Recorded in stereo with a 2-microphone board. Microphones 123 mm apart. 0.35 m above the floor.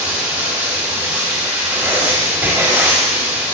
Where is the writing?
15° right (ahead or behind), 1.8 m.